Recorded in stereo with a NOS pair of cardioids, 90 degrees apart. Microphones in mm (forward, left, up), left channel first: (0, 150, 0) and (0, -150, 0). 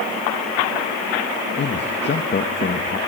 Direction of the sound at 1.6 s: 35° left.